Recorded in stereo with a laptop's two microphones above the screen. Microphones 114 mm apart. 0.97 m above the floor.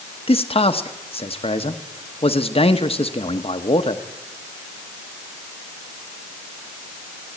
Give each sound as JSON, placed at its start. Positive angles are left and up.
{"t": 0.3, "sound": "a man speaking", "side_deg": 50, "distance_m": 1.1}